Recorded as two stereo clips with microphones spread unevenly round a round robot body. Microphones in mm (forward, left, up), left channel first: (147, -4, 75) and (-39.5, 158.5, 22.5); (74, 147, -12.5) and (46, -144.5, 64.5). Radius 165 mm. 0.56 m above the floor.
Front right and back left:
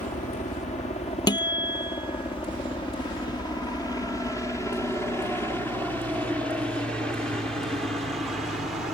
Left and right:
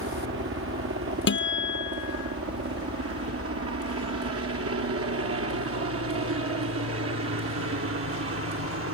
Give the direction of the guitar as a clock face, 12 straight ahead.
11 o'clock.